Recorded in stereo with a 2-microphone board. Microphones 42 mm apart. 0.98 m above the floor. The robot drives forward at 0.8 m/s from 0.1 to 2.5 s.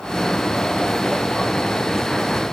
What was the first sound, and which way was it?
Only background noise.